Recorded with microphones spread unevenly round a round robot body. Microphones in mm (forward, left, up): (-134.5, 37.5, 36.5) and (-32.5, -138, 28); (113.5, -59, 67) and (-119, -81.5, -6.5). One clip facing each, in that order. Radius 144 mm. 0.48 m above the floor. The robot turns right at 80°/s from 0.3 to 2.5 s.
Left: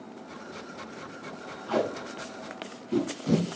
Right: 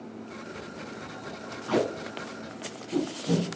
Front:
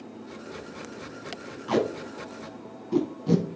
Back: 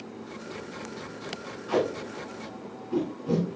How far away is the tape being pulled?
About 2 m.